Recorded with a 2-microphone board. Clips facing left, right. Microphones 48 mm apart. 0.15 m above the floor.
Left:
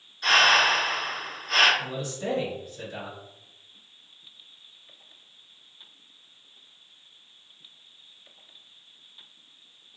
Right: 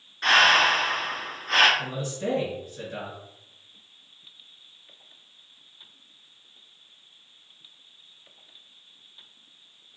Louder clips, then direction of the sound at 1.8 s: Right 2 dB; 35° right (ahead or behind).